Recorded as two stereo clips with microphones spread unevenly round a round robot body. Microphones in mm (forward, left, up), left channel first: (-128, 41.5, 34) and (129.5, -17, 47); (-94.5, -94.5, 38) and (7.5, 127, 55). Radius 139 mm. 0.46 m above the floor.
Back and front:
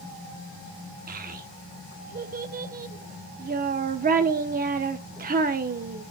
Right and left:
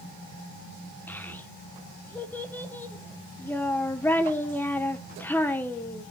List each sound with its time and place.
1.1 s a child speaking: 45° right, 0.7 m